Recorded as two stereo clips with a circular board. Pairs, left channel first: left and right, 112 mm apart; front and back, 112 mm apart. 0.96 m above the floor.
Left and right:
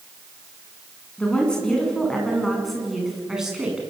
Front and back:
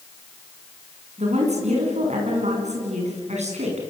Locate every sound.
1.2 s a woman speaking: 170° left, 7.5 m; by 3.8 s 175° right, 7.5 m